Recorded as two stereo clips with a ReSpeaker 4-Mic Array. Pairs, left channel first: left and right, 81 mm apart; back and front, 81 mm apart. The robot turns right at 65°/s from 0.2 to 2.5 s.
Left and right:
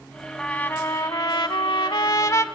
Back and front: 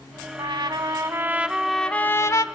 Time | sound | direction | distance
0.4 | a trumpet | 10° left | 0.7 m